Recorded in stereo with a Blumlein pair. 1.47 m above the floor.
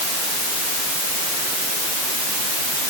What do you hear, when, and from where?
Only background noise.